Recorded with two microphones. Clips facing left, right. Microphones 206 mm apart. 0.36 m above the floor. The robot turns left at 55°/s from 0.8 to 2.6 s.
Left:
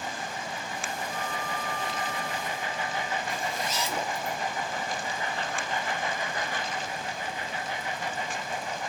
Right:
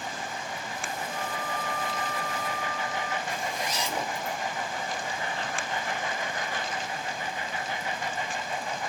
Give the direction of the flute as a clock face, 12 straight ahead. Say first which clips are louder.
Even; 6 o'clock.